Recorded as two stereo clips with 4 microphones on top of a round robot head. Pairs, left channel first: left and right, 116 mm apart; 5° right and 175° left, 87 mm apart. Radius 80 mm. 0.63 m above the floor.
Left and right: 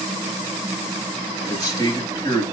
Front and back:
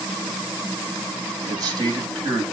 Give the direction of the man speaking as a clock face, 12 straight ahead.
7 o'clock.